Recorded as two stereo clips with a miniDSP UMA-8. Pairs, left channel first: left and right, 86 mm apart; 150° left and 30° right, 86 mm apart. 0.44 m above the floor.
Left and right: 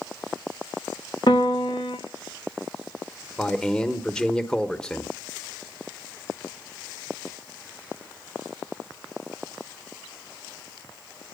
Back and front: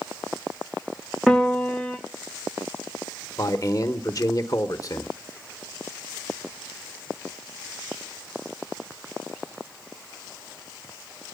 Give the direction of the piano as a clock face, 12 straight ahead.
10 o'clock.